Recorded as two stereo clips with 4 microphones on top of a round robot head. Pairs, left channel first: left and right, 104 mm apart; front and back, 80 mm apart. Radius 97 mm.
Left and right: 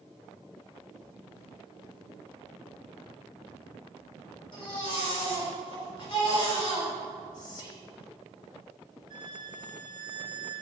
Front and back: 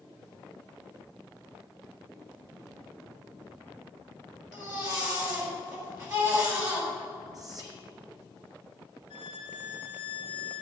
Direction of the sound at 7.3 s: 135° left.